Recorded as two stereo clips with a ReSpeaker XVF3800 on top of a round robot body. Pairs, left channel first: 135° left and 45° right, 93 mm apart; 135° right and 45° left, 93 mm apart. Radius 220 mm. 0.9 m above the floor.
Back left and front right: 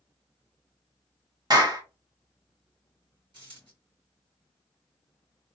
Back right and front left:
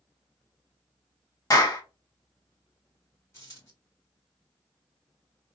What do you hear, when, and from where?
1.5 s a clap: 85° right, 1.4 m
3.3 s a dropped coin: 80° right, 2.5 m